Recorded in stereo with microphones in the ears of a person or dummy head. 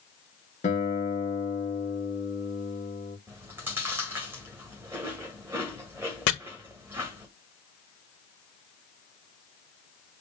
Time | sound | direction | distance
0.6 | a guitar | 35° left (ahead or behind) | 1.0 m
3.3 | chewing | 10° right (ahead or behind) | 1.8 m
6.3 | chopping | 55° left (ahead or behind) | 1.3 m